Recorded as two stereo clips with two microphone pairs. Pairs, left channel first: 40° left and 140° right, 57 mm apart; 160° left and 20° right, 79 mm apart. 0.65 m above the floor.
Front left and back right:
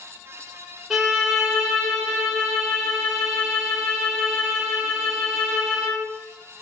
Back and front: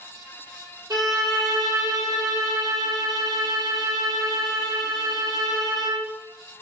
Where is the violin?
60° right, 1.4 m.